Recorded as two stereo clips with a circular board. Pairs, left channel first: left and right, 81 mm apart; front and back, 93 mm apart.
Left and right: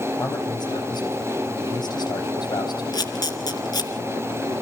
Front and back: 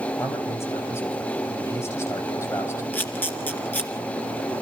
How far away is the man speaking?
About 5.5 m.